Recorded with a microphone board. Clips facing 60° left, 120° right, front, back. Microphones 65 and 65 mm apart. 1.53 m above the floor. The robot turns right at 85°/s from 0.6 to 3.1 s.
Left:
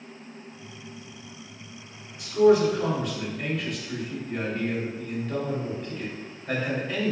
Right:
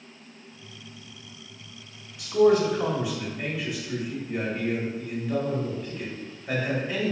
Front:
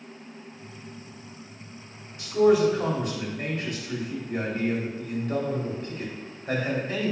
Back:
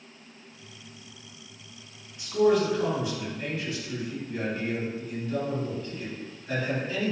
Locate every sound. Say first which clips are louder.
2.2 s a man speaking: left 1 dB, front 3 dB; 115° right, 1.9 m; by 7.1 s 35° right, 1.9 m